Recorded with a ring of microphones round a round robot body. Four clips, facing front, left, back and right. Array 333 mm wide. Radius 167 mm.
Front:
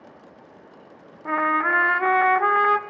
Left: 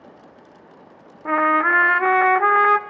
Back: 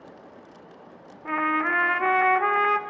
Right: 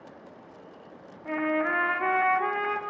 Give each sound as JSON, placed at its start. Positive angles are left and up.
{"t": 1.2, "sound": "a trumpet", "azimuth_deg": 70, "distance_m": 0.7}